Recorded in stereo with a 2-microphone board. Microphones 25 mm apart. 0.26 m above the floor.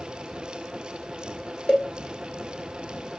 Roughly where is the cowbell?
Left.